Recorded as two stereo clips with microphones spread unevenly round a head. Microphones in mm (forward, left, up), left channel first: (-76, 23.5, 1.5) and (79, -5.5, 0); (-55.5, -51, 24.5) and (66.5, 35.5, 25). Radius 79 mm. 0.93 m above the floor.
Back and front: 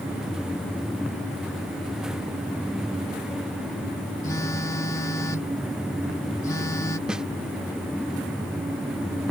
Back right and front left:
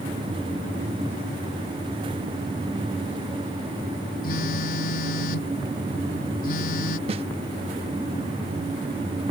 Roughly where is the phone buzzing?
Behind right.